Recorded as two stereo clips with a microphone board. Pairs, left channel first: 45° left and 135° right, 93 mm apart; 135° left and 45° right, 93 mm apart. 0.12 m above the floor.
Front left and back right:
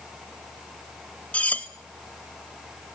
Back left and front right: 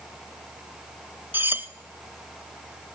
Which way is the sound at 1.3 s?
10° right.